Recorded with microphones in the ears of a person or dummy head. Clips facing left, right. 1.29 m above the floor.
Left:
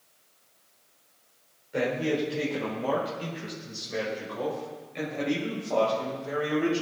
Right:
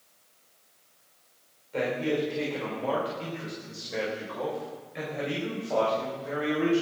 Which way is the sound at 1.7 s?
10° left (ahead or behind).